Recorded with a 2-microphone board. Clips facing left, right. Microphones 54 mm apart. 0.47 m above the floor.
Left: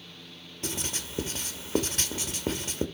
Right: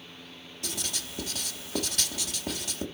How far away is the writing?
About 1.8 m.